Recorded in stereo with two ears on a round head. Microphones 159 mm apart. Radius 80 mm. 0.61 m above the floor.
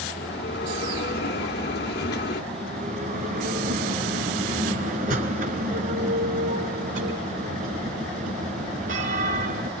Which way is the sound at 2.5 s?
45° right (ahead or behind).